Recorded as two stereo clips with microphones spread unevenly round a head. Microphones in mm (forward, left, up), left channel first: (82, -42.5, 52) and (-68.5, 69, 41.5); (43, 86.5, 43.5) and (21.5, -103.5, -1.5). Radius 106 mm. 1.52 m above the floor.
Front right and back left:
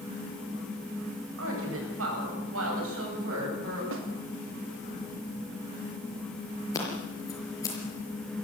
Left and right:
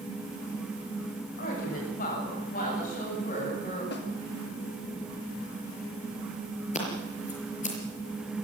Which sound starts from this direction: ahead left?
Scissors, at 6.7 s.